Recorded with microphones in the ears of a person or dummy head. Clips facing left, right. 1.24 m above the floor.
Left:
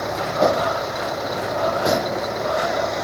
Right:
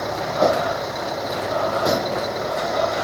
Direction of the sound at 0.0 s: Centre (ahead or behind).